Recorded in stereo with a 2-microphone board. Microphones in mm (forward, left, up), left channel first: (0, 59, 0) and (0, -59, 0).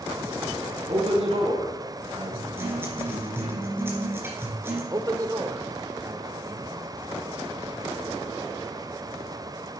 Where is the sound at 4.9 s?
30° right (ahead or behind), 0.8 m.